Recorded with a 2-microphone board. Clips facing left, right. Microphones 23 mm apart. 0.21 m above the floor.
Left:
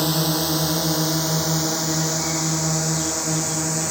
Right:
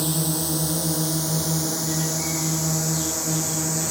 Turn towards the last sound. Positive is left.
turn(degrees=15)  # may be behind; listen again after turning